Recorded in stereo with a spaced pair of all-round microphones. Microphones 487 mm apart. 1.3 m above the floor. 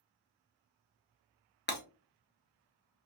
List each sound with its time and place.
1.7 s breaking glass: 20° left (ahead or behind), 0.6 m